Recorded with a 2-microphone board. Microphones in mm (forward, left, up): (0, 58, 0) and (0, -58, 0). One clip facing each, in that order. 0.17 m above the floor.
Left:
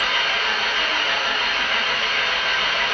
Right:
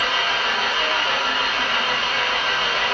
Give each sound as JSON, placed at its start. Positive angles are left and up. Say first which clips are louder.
{"t": 0.0, "sound": "an engine running", "louder": "right 1 dB", "side_deg": -35, "distance_m": 4.5}